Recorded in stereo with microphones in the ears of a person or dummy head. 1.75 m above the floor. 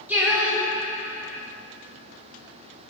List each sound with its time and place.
0.1 s singing: 5° right (ahead or behind), 0.5 m